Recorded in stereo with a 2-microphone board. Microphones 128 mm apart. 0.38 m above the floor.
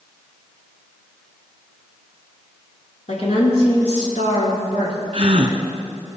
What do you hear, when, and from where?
3.1 s a woman speaking: 60° left (ahead or behind), 4.5 m; by 5.0 s 70° left (ahead or behind), 4.5 m
5.1 s a gasp: 45° right (ahead or behind), 1.6 m